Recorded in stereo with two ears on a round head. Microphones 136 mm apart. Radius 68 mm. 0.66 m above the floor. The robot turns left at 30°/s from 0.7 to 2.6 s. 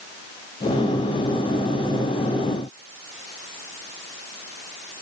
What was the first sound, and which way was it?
Only background noise.